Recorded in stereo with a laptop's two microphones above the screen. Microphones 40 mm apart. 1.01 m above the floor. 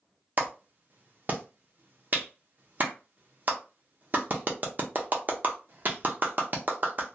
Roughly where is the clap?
Right.